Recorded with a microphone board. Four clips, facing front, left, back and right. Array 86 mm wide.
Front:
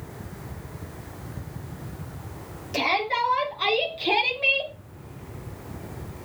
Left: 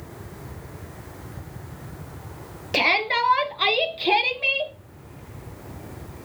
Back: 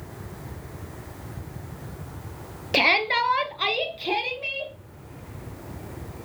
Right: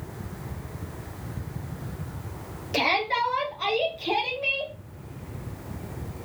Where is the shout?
150° left, 2 m; by 4.7 s 45° left, 2 m.